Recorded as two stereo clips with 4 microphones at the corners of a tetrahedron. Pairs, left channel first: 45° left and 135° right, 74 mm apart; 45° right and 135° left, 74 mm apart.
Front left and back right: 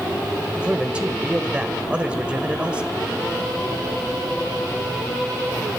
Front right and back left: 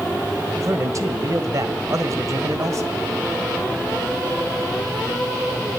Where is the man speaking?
155° left, 1.8 m.